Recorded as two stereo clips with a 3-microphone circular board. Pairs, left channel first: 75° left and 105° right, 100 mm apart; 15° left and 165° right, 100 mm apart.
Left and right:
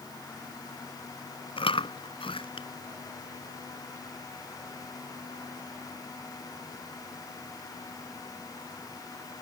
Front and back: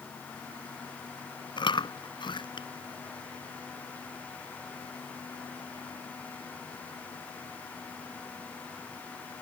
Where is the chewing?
50° left.